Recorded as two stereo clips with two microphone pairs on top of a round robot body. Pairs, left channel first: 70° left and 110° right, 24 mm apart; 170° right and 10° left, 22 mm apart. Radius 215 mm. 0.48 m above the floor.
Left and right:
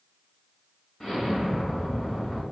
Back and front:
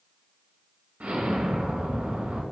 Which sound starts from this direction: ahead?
An explosion, at 1.0 s.